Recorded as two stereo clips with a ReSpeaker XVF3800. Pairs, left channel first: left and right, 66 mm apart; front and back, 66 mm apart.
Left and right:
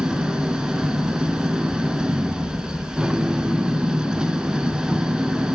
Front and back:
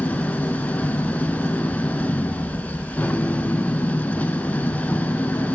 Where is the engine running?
25° right, 0.7 m.